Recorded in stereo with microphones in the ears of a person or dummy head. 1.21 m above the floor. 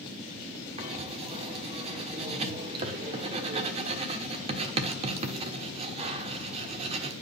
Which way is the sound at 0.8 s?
35° right (ahead or behind).